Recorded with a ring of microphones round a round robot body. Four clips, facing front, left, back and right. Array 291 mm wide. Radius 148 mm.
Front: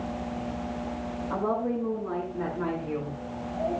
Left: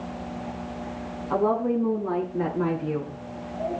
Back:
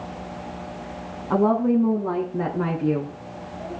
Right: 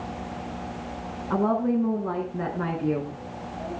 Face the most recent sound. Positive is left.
turn(degrees=-160)